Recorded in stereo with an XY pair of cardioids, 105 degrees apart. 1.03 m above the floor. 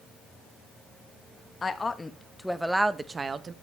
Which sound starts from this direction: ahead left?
A woman speaking, at 1.6 s.